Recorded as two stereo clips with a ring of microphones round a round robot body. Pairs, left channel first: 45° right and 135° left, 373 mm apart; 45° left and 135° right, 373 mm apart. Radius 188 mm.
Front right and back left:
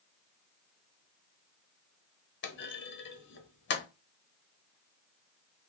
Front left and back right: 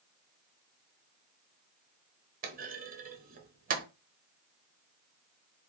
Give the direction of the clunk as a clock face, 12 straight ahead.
3 o'clock.